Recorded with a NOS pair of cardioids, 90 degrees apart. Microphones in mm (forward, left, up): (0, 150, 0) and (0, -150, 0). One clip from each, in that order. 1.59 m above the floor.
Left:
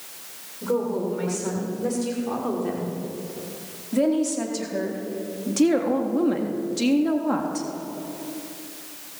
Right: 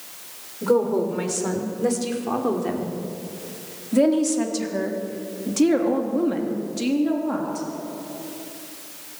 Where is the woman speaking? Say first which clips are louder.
Right 5 dB; 45° right, 6.5 m; by 7.7 s 35° left, 3.5 m.